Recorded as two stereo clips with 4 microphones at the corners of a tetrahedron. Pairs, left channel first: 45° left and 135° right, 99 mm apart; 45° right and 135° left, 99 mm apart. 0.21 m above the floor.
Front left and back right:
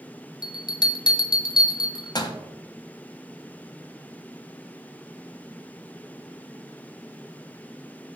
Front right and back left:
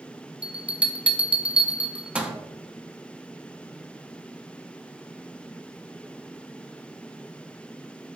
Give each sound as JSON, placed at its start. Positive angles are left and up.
{"t": 0.4, "sound": "a bell", "azimuth_deg": 60, "distance_m": 0.5}